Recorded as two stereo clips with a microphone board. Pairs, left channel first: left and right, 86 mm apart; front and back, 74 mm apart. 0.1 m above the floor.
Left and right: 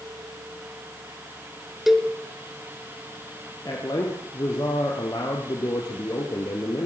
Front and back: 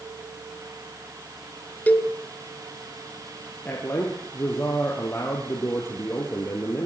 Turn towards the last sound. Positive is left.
turn(degrees=50)